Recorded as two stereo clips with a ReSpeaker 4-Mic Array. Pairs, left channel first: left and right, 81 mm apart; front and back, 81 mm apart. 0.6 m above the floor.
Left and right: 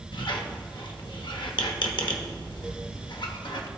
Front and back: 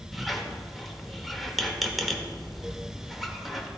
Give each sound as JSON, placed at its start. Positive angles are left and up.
{"t": 0.1, "sound": "a squeak", "azimuth_deg": 90, "distance_m": 0.8}